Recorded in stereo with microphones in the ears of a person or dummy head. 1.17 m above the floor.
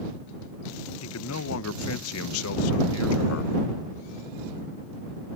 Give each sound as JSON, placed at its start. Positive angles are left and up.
{"t": 1.0, "sound": "a man speaking", "side_deg": 70}